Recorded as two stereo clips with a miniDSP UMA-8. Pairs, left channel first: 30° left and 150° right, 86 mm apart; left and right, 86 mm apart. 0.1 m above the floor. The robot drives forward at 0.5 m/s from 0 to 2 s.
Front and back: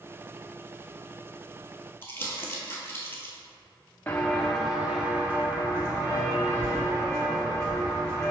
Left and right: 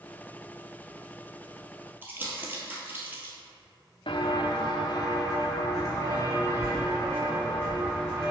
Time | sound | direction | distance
2.0 | crumpling | 30° right | 0.9 m
4.1 | footsteps | 100° left | 0.7 m